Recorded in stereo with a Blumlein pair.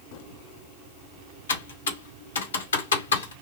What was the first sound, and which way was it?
Typing on a keyboard, 65° left.